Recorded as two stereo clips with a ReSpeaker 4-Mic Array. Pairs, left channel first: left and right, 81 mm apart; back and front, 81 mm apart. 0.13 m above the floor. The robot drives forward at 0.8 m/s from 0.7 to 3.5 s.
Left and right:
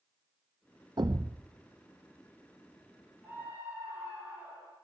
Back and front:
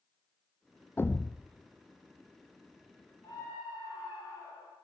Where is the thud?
115° right, 0.8 m; by 1.4 s 135° right, 1.0 m.